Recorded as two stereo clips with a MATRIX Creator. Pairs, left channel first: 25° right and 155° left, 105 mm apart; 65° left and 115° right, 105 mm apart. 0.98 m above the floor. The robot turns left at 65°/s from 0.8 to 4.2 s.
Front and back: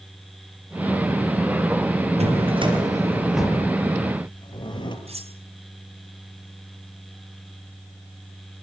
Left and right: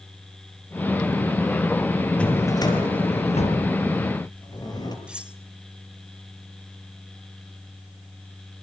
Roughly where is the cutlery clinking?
Behind.